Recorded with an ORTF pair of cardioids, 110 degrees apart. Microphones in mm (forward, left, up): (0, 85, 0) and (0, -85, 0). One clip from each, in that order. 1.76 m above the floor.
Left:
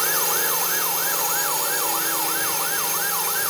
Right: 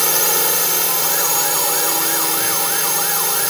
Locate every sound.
0.0 s a drone: 40° right